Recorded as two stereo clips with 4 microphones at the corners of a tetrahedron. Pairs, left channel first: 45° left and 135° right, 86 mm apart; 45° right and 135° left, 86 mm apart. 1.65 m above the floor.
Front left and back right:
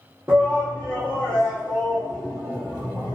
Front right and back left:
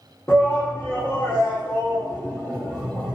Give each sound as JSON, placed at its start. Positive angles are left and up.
{"t": 0.3, "sound": "a shout", "azimuth_deg": -95, "distance_m": 0.7}